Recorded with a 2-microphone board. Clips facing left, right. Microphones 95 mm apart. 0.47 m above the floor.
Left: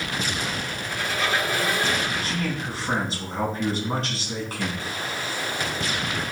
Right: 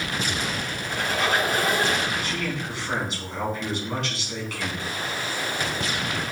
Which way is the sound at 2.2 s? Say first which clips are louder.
Left 1 dB; 40° left (ahead or behind).